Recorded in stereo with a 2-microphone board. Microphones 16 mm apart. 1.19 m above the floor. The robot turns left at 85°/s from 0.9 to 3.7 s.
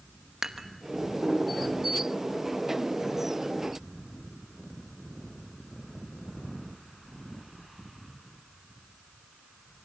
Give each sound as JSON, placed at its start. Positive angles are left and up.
{"t": 0.4, "sound": "dishes clattering", "side_deg": -35, "distance_m": 1.0}